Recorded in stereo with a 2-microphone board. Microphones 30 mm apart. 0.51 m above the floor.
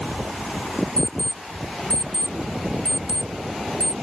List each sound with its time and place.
1.0 s an alarm clock: 40° left (ahead or behind)